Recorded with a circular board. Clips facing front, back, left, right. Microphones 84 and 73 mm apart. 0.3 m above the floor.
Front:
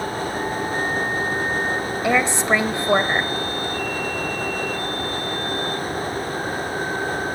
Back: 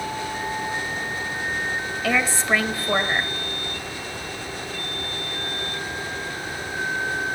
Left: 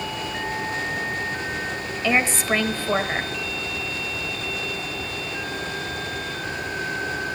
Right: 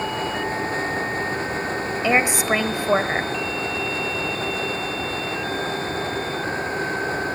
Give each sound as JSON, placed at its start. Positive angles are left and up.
{"t": 2.0, "sound": "a woman speaking", "azimuth_deg": -35, "distance_m": 0.9}